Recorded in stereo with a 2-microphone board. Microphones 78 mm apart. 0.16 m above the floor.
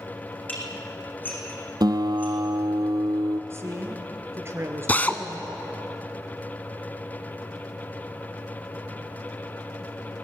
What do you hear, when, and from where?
0.5 s dishes clattering: 25° left (ahead or behind), 5 m
1.8 s a guitar: 65° right (ahead or behind), 1.2 m
3.5 s a woman speaking: 35° right (ahead or behind), 2.5 m
4.9 s a drill: 20° left (ahead or behind), 1.1 m